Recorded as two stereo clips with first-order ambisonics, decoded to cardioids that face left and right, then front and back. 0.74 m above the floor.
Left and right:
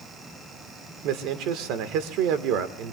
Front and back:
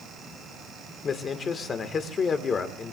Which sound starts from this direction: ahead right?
A man speaking, at 1.0 s.